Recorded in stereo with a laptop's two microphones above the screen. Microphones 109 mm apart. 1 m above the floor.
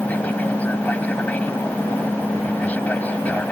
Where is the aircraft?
15° left (ahead or behind).